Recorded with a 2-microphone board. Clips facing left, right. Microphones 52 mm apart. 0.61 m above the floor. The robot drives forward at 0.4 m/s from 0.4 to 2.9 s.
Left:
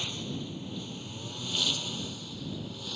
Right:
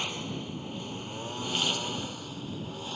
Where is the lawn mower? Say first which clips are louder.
Right 2 dB; 40° right (ahead or behind); by 3.0 s 30° right (ahead or behind).